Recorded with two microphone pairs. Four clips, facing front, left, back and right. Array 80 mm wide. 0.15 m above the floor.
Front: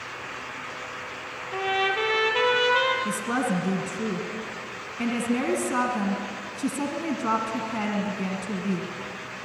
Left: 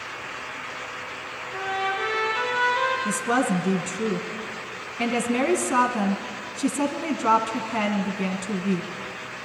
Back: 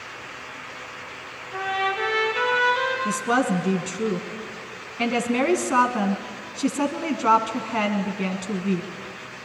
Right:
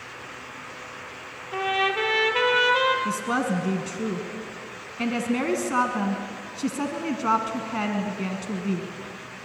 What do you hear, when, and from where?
1.5 s a trumpet: 70° right, 5 m
3.0 s a woman speaking: 170° left, 1.7 m